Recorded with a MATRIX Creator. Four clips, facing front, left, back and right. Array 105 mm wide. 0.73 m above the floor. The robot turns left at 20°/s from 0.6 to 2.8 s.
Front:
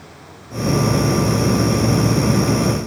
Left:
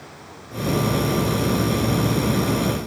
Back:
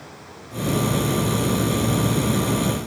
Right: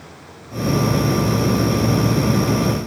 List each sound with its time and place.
Only background noise.